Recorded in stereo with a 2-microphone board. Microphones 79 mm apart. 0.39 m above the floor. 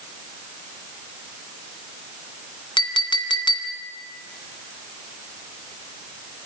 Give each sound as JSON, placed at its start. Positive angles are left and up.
{"t": 2.8, "sound": "a clink", "side_deg": 80, "distance_m": 1.9}